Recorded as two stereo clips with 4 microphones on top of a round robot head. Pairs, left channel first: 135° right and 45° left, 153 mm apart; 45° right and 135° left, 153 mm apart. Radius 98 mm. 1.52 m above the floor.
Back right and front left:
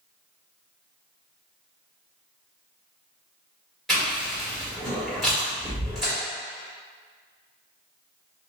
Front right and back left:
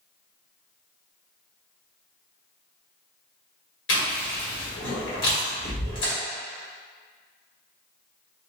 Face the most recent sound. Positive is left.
turn(degrees=-45)